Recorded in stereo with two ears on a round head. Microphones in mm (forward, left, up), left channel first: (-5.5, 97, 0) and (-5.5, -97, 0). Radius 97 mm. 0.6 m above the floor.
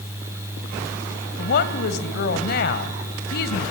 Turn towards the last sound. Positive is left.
turn(degrees=50)  # may be behind; listen again after turning